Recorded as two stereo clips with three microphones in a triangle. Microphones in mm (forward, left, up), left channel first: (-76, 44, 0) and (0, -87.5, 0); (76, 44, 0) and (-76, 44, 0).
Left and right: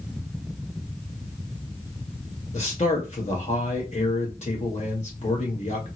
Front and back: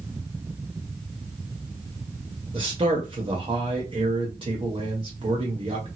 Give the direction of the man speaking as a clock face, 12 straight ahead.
7 o'clock.